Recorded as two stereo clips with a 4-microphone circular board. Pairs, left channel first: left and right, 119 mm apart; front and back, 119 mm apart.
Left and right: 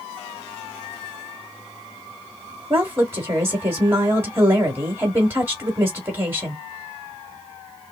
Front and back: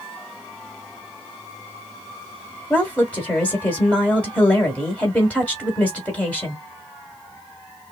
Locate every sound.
2.7 s a woman speaking: 60° right, 1.5 m